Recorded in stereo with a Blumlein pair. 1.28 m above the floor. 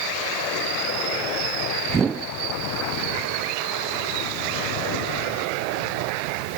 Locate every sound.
1.9 s a whoosh: 15° right, 0.6 m